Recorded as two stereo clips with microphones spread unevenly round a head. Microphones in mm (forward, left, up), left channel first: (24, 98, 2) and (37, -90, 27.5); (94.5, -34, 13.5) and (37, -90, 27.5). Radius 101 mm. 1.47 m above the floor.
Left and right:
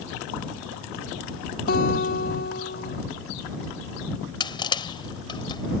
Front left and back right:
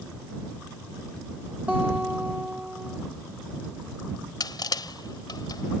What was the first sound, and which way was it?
A guitar, 145° left.